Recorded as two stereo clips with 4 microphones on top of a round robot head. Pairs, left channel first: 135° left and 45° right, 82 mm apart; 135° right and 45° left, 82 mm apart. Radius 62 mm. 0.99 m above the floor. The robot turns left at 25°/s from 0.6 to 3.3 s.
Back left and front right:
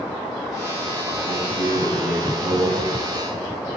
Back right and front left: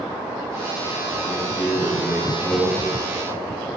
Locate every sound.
1.3 s a man speaking: 5° right, 9 m; by 2.8 s 45° right, 9 m